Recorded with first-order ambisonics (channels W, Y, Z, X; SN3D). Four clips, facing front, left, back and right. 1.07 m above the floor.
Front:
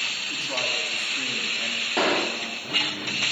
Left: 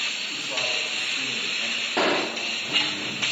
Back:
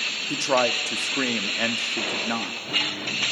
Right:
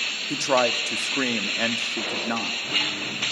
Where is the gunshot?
50° left, 2.5 m.